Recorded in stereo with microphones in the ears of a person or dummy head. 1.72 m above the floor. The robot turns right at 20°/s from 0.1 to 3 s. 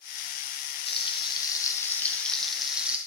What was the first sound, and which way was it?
Frying, 145° left.